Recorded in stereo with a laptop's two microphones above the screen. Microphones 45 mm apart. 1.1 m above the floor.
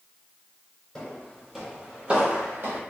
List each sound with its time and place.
0.9 s footsteps: 15° left (ahead or behind), 1.5 m; by 2.8 s 45° right (ahead or behind), 1.5 m